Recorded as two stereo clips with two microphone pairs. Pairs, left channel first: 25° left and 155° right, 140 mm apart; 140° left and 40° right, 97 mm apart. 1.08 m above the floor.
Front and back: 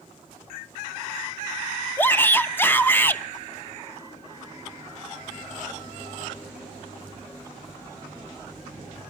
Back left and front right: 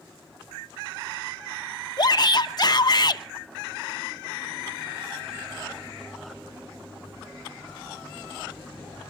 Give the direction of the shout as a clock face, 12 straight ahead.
9 o'clock.